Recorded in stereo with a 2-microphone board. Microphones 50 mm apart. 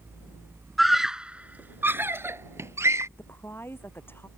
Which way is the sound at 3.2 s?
45° left (ahead or behind).